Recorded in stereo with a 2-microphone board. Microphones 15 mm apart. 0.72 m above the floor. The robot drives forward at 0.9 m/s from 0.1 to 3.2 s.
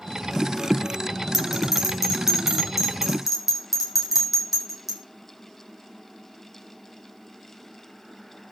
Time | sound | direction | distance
1.3 | a bell | 15° right (ahead or behind) | 5.5 m